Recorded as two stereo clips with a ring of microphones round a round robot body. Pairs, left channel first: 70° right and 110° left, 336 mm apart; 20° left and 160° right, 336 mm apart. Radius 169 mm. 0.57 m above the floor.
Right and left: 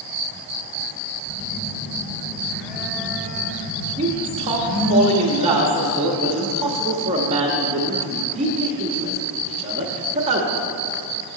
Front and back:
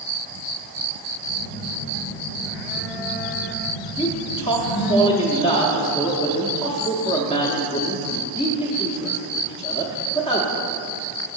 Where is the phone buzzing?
20° left, 0.7 m.